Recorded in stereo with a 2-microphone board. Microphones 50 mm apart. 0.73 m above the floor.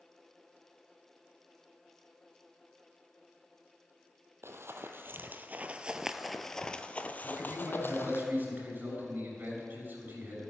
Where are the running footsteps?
60° right (ahead or behind), 1.3 m; by 8.2 s 50° left (ahead or behind), 1.5 m.